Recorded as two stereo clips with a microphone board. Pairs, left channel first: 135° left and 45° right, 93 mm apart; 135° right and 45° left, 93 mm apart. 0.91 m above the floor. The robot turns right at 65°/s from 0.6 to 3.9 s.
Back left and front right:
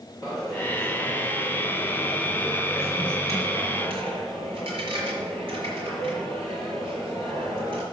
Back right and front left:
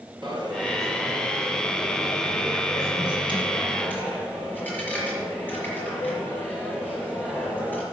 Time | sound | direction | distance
0.2 | a dropped coin | 80° left | 5 m